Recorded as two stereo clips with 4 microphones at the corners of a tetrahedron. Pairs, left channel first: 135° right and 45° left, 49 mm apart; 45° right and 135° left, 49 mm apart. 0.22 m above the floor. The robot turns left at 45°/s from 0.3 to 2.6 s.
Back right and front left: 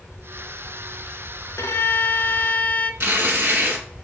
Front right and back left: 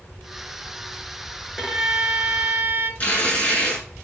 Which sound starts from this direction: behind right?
A violin, at 1.6 s.